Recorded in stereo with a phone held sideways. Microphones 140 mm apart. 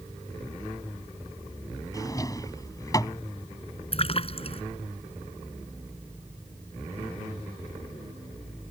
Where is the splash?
45° left (ahead or behind).